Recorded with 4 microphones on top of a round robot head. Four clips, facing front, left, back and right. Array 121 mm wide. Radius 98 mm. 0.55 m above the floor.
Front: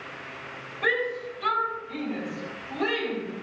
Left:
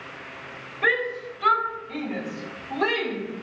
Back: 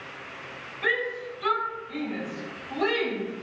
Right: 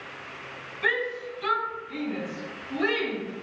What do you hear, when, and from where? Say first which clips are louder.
0.8 s a shout: left 3 dB, front 2 dB; 70° left, 3 m; by 3.2 s 100° left, 5.5 m